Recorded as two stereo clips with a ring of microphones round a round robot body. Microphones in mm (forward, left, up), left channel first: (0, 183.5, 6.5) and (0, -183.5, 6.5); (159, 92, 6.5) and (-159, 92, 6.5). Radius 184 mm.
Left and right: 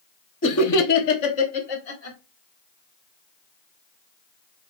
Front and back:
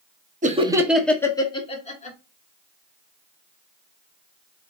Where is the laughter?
130° left, 1.0 m; by 2.2 s 65° left, 2 m.